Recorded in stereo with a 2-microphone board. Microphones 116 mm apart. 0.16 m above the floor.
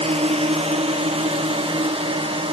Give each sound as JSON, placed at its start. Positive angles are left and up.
{"t": 0.0, "sound": "a drone", "side_deg": -65}